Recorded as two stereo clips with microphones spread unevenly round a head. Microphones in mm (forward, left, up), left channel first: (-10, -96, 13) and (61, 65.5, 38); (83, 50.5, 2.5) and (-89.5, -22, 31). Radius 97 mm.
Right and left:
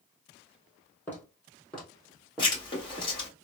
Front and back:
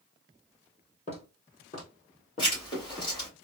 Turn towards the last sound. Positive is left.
turn(degrees=-50)